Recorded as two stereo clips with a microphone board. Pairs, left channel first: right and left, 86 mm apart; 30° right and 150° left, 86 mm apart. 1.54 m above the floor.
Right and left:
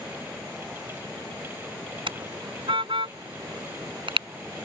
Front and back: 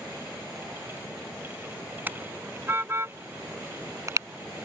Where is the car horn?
80° left; by 4.3 s 100° left.